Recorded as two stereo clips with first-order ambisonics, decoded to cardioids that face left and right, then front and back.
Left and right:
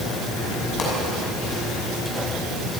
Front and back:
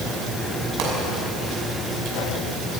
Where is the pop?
150° left, 6.5 m.